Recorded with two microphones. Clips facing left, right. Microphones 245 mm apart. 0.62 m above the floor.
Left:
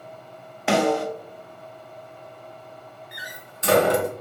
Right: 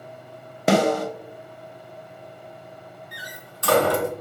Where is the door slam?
20° left (ahead or behind), 0.6 m.